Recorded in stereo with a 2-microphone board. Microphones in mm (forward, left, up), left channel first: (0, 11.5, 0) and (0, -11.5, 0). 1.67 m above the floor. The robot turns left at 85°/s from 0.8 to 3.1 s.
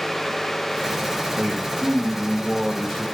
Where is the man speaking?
85° right, 2.5 m; by 3.0 s 130° left, 2.5 m.